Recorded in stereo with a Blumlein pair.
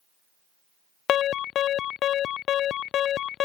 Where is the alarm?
30° left.